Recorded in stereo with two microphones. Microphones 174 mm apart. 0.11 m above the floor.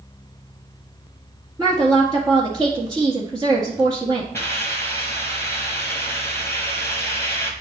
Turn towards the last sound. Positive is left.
turn(degrees=15)  # may be behind; listen again after turning